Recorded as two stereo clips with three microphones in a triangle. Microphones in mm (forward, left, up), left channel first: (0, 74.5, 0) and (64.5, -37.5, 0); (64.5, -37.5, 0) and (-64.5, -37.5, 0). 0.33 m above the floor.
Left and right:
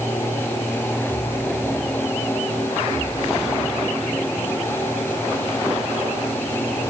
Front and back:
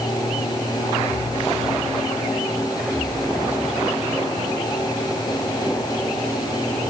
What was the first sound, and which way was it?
Only background noise.